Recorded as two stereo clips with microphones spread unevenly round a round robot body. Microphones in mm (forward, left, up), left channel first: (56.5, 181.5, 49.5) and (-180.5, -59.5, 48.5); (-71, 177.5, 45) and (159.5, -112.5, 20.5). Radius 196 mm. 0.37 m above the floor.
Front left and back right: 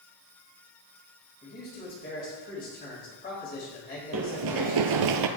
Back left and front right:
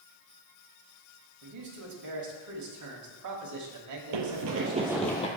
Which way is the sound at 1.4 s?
20° right.